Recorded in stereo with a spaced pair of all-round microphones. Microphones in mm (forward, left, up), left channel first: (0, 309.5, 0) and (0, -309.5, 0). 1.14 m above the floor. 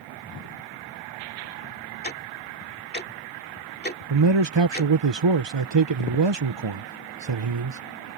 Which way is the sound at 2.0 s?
15° left (ahead or behind).